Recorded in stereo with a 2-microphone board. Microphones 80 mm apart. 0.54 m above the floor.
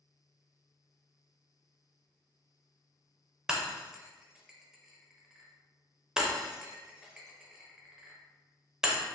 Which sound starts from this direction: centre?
Breaking glass, at 3.5 s.